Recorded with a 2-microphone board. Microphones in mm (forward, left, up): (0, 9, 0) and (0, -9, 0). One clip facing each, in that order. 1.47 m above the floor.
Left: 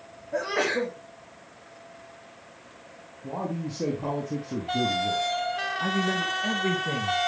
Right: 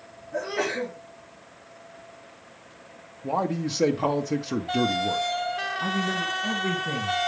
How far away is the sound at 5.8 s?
About 2.0 m.